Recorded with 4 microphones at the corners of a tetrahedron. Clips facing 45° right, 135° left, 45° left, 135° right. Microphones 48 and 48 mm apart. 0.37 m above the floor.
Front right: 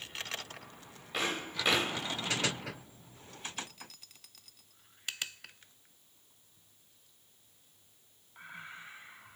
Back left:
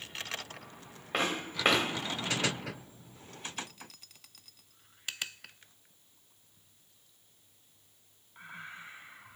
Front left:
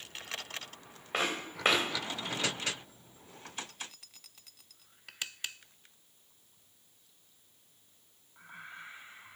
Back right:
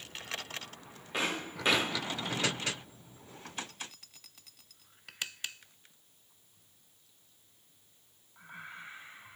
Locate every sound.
1.1 s footsteps: 95° left, 2.5 m